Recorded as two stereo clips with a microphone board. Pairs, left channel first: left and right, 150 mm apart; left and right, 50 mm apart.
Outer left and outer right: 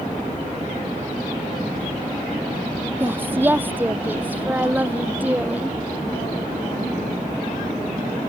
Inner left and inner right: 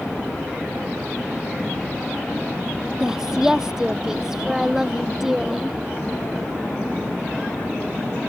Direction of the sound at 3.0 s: 15° right (ahead or behind).